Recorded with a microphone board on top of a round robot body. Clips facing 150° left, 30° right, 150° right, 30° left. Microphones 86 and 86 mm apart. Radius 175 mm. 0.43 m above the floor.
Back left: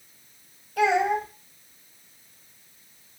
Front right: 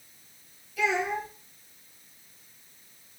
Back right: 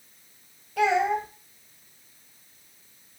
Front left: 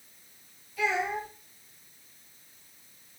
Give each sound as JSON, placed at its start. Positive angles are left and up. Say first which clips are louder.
{"t": 0.8, "sound": "a child speaking", "louder": "back left 6 dB, back right 7 dB", "azimuth_deg": -175, "distance_m": 1.9}